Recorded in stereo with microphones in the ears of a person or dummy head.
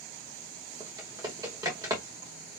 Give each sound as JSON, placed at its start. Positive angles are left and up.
{"t": 0.8, "sound": "typing on a keyboard", "side_deg": -20, "distance_m": 1.6}